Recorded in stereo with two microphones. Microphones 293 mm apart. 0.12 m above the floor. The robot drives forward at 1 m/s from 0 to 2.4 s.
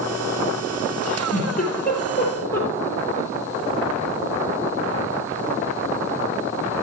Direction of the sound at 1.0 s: 25° left (ahead or behind).